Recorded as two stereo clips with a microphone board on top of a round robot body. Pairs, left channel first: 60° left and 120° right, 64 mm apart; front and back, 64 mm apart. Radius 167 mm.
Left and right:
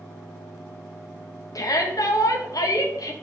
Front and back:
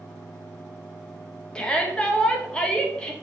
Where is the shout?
75° left, 2.5 m.